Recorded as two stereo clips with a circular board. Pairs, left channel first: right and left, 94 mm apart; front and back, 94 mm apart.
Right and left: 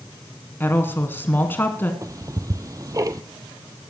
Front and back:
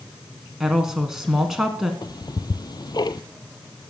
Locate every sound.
0.6 s a woman speaking: 100° right, 1.1 m
2.0 s ticking: 40° left, 0.6 m